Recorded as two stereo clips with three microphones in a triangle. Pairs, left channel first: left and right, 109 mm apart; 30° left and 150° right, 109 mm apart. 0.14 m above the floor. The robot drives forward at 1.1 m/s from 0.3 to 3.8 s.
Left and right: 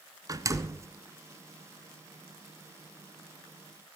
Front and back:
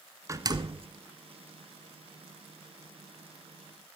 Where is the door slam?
115° right, 1.0 m; by 0.9 s 150° right, 1.3 m.